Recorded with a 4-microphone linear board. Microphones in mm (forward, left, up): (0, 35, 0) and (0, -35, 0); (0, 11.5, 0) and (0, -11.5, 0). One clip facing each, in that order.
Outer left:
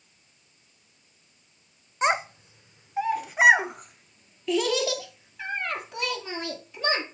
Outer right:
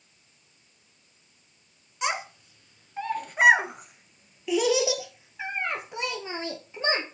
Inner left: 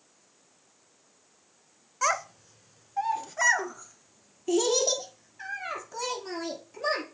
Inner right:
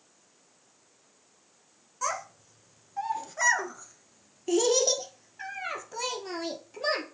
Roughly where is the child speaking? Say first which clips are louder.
Outer left 5 dB, inner left 5 dB; left.